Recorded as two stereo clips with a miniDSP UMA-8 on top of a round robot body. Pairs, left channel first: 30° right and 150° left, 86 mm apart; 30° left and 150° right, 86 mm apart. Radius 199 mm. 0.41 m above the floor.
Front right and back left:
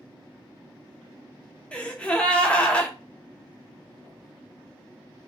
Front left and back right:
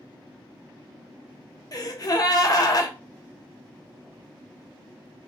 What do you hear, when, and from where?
1.7 s a gasp: 40° left, 0.8 m